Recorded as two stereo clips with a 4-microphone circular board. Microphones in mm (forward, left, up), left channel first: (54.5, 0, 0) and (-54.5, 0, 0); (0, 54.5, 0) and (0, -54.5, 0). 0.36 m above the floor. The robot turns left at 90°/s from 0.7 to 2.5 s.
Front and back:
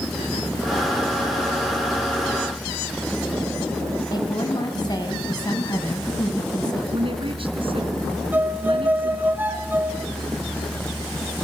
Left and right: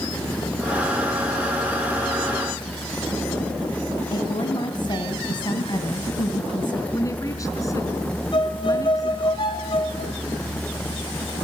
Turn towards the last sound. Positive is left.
turn(degrees=115)